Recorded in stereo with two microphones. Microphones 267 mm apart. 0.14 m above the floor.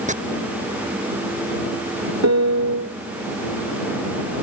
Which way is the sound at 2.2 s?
80° right.